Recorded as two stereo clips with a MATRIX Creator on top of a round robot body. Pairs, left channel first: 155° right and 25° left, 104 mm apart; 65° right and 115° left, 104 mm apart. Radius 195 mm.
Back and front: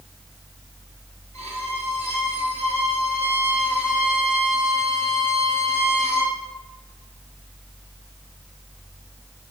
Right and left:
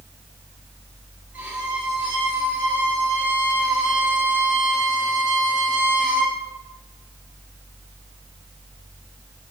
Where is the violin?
35° left, 5 m.